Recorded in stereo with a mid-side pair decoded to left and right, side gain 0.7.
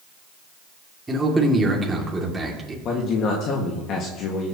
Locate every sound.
1.1 s a man speaking: 15° right, 2.5 m
2.9 s a man speaking: 45° left, 1.8 m